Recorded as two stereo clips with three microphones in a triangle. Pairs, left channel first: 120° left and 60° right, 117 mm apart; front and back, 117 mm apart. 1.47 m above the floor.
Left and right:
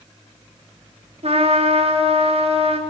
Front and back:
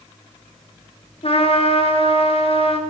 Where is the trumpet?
35° right, 4 m.